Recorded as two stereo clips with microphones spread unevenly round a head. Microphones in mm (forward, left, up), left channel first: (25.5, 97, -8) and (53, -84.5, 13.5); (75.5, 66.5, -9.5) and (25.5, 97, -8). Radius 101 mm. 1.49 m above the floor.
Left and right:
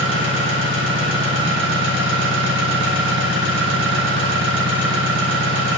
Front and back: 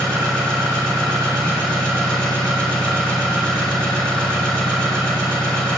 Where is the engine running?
70° right, 1.6 m.